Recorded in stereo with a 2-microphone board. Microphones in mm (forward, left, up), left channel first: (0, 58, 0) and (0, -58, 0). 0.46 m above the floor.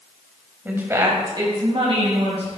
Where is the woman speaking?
15° right (ahead or behind), 2 m; by 2.6 s 60° right (ahead or behind), 3 m.